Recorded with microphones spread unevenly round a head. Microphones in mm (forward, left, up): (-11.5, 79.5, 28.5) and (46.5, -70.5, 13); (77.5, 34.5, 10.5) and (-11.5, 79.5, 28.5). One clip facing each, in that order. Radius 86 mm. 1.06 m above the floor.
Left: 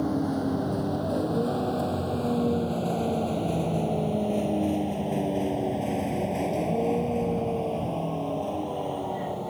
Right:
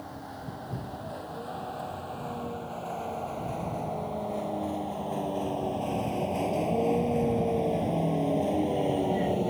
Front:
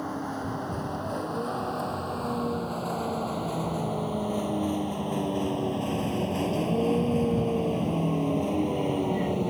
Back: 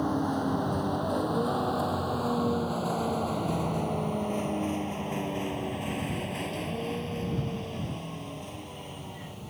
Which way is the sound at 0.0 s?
80° left.